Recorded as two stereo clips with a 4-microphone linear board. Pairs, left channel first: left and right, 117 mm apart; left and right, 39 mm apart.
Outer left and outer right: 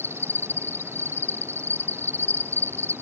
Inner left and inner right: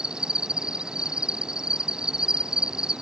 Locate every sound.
0.0 s an insect: 20° right (ahead or behind)